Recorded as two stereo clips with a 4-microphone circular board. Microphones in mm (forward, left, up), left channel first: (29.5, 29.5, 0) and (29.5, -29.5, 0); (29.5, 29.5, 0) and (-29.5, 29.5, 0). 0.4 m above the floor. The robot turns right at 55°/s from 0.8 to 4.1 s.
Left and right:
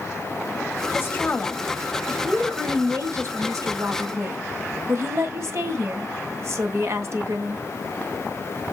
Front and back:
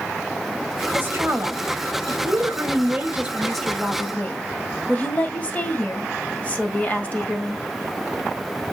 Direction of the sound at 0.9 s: 125° left.